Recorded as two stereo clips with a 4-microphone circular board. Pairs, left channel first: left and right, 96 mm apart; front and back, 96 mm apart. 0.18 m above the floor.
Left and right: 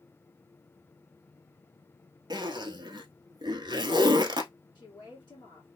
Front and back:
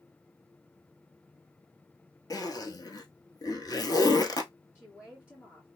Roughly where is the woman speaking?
Ahead left.